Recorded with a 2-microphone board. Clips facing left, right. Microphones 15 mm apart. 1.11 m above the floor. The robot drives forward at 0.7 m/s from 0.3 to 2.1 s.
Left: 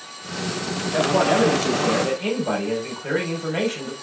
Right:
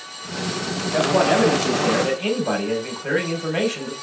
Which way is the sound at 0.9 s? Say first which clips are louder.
Right 1 dB; 5° right (ahead or behind).